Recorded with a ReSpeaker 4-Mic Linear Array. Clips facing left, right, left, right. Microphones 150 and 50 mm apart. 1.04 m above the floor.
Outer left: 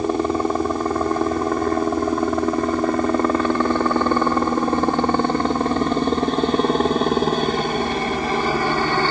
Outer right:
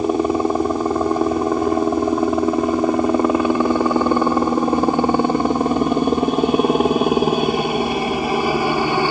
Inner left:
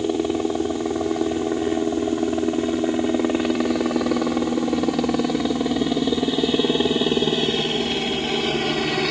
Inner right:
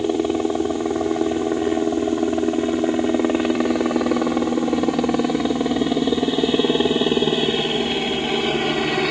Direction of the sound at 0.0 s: 10° right (ahead or behind).